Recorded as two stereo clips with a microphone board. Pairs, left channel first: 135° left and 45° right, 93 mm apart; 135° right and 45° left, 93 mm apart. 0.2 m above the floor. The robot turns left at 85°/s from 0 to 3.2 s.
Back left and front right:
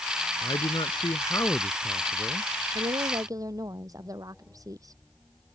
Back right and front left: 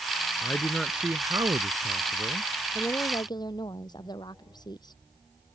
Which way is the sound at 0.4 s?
170° left.